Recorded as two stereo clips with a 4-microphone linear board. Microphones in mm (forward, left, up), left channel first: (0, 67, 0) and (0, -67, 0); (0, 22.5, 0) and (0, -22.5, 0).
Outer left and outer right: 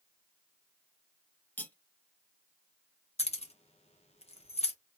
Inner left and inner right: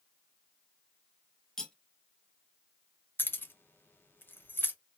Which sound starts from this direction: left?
Keys jangling, at 3.2 s.